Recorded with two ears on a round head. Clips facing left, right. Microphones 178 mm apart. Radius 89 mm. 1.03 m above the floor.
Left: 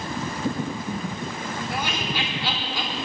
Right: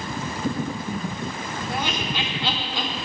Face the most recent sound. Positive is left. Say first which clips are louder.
# right 3 dB
turn(degrees=-20)  # may be behind; listen again after turning